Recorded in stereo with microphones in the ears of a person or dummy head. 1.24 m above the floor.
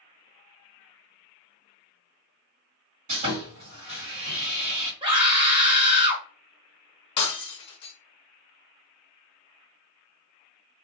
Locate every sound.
3.1 s sawing: 40° right (ahead or behind), 2 m
5.0 s a scream: 20° right (ahead or behind), 0.9 m
7.2 s breaking glass: 30° left (ahead or behind), 0.6 m